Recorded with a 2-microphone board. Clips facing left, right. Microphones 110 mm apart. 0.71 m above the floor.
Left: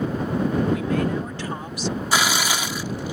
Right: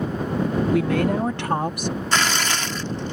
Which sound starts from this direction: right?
A woman speaking, at 0.7 s.